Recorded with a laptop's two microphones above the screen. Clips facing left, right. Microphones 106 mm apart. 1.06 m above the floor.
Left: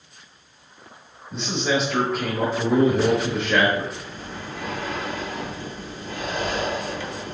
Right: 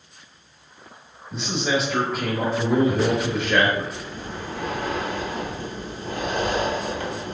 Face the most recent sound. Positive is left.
turn(degrees=-50)  # may be behind; listen again after turning